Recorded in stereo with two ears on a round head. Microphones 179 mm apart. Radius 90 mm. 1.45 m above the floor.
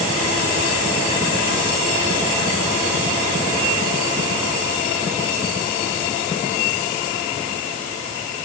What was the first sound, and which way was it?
Only background noise.